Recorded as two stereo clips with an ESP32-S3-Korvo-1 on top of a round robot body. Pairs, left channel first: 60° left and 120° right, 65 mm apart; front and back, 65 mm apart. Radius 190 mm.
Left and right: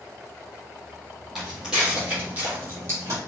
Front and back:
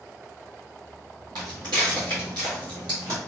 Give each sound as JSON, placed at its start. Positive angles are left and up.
{"t": 1.4, "sound": "footsteps", "azimuth_deg": 155, "distance_m": 1.5}